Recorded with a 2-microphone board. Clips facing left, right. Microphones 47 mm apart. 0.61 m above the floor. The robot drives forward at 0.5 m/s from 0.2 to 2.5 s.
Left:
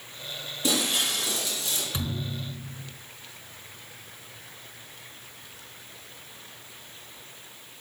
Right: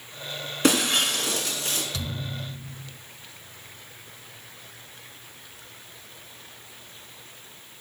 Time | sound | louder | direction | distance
0.6 | breaking glass | right 5 dB | 70° right (ahead or behind) | 3 m
1.9 | a thud | left 1 dB | 25° left (ahead or behind) | 1.4 m